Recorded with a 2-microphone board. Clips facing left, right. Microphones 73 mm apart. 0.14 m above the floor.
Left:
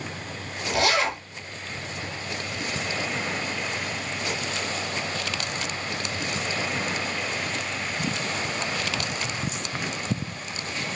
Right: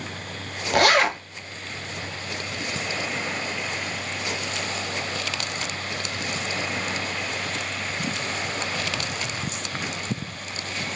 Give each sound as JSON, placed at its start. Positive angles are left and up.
{"t": 0.7, "sound": "a zipper", "side_deg": -60, "distance_m": 0.5}